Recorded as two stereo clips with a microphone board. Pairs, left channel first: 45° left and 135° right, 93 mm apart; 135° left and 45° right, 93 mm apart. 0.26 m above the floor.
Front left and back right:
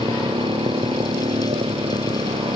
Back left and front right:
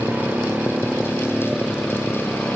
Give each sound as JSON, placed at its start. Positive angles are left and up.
{"t": 0.0, "sound": "a motorcycle", "azimuth_deg": -115}